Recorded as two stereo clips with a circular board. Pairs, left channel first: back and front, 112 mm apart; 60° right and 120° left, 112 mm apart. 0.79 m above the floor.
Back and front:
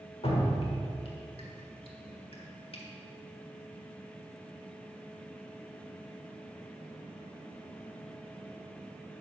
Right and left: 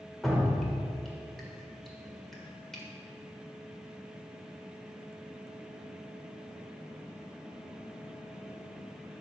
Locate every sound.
0.2 s dripping: 145° right, 1.5 m